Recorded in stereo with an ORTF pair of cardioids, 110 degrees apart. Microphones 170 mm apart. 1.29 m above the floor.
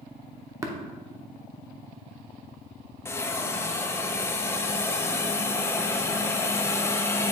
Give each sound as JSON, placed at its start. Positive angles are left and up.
{"t": 0.6, "sound": "tapping", "azimuth_deg": -20, "distance_m": 1.0}
{"t": 3.0, "sound": "a hiss", "azimuth_deg": 15, "distance_m": 0.6}